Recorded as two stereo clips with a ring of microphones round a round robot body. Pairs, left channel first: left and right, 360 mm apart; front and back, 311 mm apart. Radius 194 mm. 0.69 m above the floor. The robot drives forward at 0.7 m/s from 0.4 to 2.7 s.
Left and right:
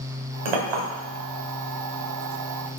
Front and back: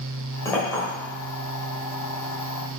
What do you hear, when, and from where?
0.5 s a clink: 85° right, 1.7 m; by 0.8 s 90° right, 1.7 m